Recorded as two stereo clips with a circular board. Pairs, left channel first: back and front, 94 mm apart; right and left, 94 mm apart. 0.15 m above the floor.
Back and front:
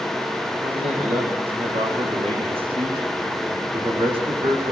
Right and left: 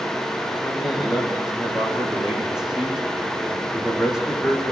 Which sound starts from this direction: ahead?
A man speaking, at 0.6 s.